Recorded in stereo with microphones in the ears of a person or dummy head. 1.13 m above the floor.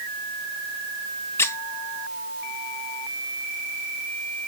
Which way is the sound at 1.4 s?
15° left (ahead or behind).